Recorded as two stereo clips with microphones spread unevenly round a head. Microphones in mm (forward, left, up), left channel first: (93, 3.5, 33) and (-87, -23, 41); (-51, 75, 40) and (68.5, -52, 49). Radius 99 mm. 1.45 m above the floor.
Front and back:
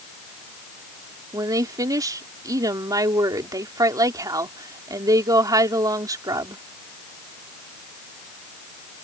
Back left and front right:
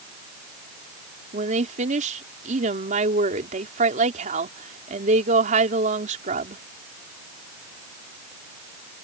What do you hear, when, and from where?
1.3 s a woman speaking: 100° right